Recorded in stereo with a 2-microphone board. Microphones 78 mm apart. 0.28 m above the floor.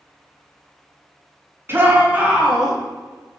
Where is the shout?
30° right (ahead or behind), 2 m; by 2.8 s 5° right (ahead or behind), 3 m.